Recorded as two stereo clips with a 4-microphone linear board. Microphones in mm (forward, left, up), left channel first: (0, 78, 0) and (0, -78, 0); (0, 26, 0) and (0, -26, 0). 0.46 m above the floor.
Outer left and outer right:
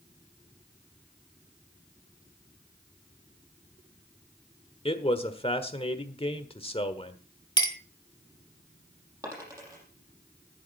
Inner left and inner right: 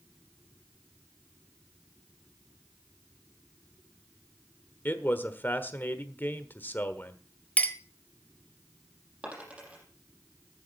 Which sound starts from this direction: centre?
A dropped coin, at 9.2 s.